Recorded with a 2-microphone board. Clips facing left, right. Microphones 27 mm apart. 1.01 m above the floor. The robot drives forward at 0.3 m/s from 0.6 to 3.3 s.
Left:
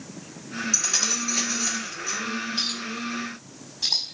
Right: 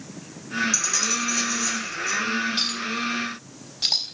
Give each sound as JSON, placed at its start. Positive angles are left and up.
{"t": 0.7, "sound": "keys jangling", "side_deg": 25, "distance_m": 4.5}
{"t": 2.6, "sound": "a clink", "side_deg": -55, "distance_m": 4.0}